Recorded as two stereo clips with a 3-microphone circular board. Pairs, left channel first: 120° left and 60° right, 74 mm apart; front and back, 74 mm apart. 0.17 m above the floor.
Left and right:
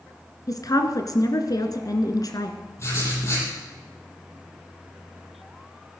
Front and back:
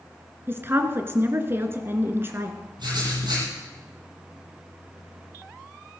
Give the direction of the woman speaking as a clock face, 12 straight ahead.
8 o'clock.